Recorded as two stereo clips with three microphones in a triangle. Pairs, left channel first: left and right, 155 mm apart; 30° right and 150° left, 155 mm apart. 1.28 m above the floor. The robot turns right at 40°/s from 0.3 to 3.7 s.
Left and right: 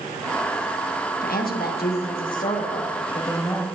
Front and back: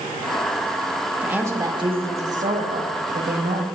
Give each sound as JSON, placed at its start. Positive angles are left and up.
{"t": 1.2, "sound": "a woman speaking", "azimuth_deg": 70, "distance_m": 1.2}